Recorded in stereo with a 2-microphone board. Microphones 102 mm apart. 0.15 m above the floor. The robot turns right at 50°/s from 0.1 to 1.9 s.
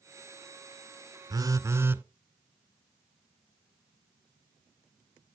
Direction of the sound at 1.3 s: 40° right (ahead or behind).